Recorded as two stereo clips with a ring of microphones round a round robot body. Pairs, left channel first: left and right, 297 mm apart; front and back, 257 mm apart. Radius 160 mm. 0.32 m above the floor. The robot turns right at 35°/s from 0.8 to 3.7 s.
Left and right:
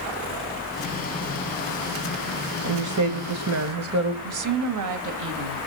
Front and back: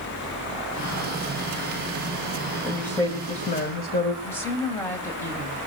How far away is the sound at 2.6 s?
About 2 m.